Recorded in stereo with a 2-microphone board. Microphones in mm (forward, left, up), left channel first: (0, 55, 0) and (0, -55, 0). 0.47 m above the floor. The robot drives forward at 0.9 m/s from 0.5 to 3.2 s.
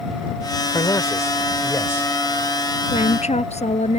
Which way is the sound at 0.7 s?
35° left (ahead or behind).